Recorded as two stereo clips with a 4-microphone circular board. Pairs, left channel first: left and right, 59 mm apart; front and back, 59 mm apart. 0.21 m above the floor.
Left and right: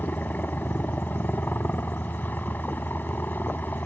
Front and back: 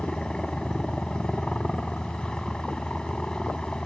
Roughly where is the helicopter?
Left.